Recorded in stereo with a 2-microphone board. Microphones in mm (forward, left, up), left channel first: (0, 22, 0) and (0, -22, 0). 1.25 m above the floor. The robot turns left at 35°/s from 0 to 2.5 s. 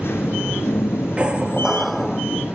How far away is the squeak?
About 1.0 m.